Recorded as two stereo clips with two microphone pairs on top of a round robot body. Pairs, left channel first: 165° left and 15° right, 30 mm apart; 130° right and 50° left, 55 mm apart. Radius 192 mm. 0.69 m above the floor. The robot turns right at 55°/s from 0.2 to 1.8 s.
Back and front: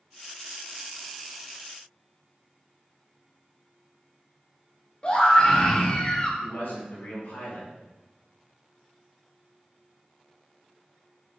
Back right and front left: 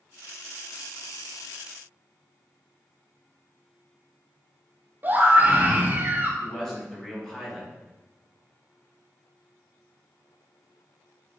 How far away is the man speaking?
About 4.5 m.